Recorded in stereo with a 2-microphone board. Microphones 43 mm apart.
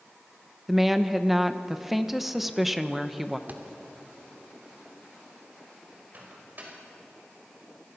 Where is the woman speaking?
Centre (ahead or behind), 1.1 m.